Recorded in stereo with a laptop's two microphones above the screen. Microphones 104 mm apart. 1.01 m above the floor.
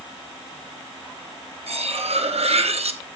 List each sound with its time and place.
1.7 s cutlery clinking: 75° right (ahead or behind), 1.0 m